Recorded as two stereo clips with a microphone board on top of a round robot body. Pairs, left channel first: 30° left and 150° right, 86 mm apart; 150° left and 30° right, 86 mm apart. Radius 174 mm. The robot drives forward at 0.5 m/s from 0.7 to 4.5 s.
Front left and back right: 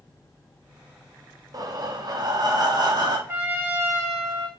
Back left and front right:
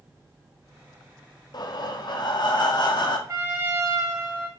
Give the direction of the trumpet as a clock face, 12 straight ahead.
3 o'clock.